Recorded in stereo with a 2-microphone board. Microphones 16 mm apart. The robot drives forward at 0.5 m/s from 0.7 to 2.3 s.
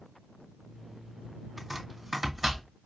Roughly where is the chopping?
Centre.